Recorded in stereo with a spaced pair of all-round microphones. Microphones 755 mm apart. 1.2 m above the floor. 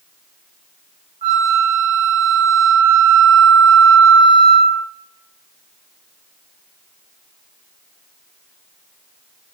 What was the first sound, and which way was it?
A flute, 35° right (ahead or behind).